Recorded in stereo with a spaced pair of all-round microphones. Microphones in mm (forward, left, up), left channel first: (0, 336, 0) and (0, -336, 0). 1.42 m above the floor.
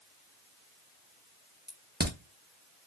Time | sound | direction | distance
1.7 | a crack | 15° right (ahead or behind) | 0.7 m